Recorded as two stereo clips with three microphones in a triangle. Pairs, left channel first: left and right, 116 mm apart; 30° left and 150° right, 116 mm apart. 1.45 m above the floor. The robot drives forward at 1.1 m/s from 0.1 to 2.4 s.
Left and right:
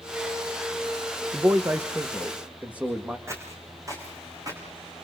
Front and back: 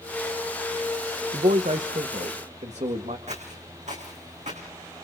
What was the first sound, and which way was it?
A man speaking, 155° right.